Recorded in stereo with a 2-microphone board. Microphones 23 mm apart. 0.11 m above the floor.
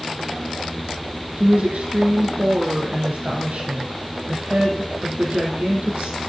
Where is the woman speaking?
70° right (ahead or behind), 3 m.